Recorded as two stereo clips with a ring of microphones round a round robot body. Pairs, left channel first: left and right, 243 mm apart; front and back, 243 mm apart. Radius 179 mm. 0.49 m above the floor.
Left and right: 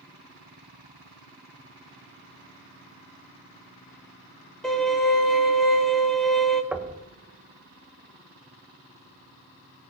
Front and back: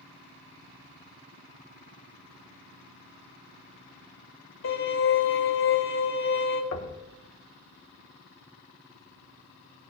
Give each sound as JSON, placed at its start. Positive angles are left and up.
{"t": 4.6, "sound": "a violin", "azimuth_deg": 5, "distance_m": 4.5}
{"t": 6.7, "sound": "knocking", "azimuth_deg": -5, "distance_m": 1.6}